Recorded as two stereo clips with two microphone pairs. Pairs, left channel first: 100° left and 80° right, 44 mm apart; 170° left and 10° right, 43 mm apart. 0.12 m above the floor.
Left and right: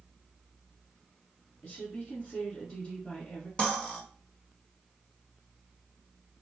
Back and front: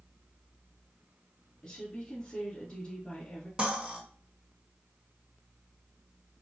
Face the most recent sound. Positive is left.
turn(degrees=45)